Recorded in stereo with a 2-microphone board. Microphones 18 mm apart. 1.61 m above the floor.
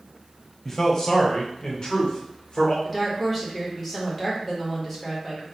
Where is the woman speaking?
15° left (ahead or behind), 1.4 m.